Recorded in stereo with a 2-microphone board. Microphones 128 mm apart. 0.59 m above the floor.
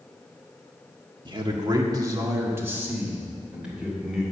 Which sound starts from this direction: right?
A man speaking, at 1.2 s.